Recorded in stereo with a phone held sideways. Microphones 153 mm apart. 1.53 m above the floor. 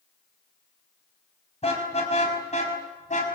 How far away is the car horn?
About 5.5 m.